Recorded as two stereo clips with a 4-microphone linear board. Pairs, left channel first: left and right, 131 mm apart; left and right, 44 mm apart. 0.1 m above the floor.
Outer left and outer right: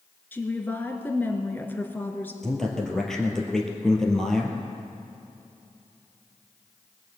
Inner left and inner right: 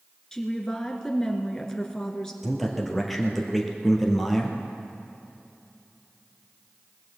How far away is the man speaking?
About 2 m.